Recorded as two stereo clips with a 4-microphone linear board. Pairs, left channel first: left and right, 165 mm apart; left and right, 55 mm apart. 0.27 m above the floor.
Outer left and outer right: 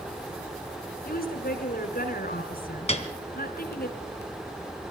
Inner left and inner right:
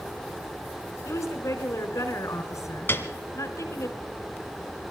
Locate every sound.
1.1 s a woman speaking: 65° left (ahead or behind), 3.5 m
2.9 s a piano: 40° left (ahead or behind), 1.9 m